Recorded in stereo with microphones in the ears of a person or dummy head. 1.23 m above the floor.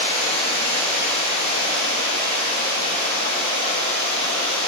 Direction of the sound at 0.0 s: 35° left (ahead or behind).